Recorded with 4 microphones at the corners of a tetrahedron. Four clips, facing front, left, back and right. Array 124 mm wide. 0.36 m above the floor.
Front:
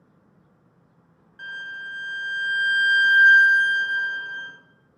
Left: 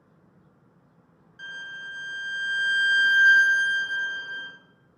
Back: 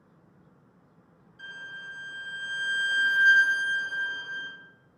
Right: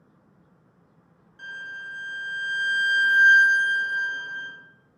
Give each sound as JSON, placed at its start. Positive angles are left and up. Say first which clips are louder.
{"t": 1.4, "sound": "a violin", "louder": "right 1 dB, front 7 dB", "azimuth_deg": -5, "distance_m": 1.0}